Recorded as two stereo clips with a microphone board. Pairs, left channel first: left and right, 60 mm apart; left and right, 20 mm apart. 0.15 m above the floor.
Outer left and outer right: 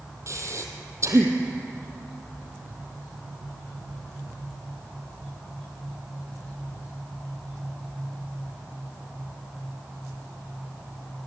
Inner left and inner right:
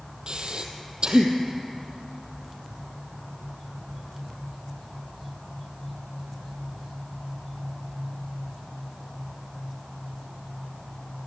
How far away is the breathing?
About 2 m.